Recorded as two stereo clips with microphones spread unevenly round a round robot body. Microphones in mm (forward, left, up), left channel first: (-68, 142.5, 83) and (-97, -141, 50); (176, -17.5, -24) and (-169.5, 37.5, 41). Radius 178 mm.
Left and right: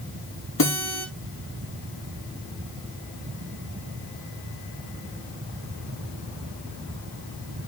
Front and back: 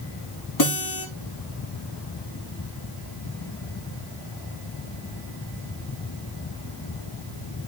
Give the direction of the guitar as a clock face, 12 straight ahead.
11 o'clock.